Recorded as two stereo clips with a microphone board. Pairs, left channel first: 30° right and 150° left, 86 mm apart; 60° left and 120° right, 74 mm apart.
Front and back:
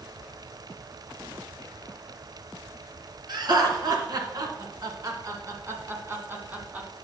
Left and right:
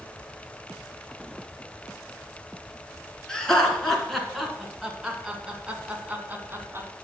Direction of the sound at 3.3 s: 140° left.